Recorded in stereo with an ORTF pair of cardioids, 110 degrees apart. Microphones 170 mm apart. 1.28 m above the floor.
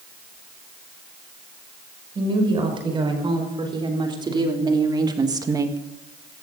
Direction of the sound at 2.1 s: 30° right.